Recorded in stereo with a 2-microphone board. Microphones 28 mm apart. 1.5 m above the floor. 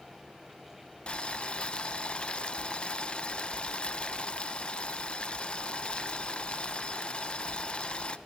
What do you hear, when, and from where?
1.1 s boiling: 35° left (ahead or behind), 0.9 m